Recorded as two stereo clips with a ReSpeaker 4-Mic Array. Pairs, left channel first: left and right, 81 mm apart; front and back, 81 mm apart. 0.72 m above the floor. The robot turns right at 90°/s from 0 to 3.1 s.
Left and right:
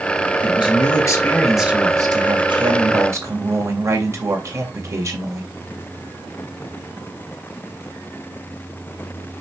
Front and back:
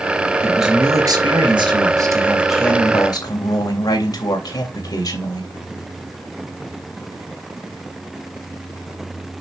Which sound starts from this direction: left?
A man speaking, at 0.4 s.